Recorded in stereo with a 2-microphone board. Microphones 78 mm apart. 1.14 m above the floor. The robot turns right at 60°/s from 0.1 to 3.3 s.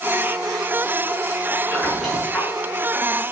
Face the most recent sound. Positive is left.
turn(degrees=70)